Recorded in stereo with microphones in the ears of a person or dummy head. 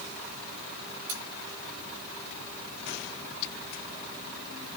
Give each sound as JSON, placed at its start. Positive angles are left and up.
{"t": 1.1, "sound": "cutlery clinking", "side_deg": -60, "distance_m": 3.0}